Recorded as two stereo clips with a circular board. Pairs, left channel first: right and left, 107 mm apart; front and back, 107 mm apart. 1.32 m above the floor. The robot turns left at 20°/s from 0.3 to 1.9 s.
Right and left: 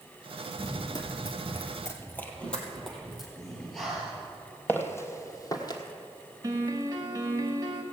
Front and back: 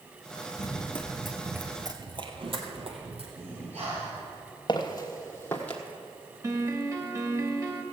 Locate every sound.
0.6 s running footsteps: 40° right, 2 m; by 3.3 s straight behind, 3.5 m
3.4 s breathing: straight behind, 5.5 m
4.7 s footsteps: 25° right, 1.8 m; by 5.8 s 75° right, 1.7 m
6.4 s a piano: 130° left, 1.5 m